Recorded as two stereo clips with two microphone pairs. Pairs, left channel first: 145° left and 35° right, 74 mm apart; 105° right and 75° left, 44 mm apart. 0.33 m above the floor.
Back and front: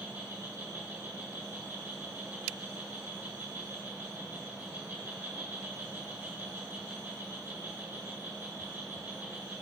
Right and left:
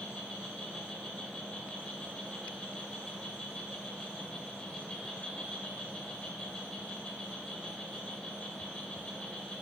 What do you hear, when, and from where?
0.0 s an insect: 45° right, 1.8 m